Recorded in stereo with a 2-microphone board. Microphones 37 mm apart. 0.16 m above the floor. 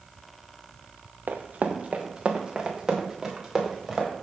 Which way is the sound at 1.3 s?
65° right (ahead or behind).